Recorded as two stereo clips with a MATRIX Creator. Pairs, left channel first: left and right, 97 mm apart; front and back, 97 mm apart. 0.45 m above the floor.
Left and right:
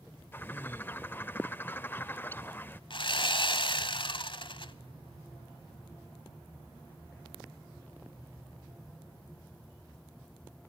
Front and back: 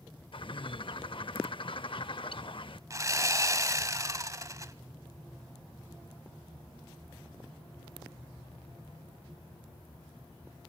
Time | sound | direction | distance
0.3 | a bird | 25° left | 0.6 m
2.9 | sawing | 120° left | 0.8 m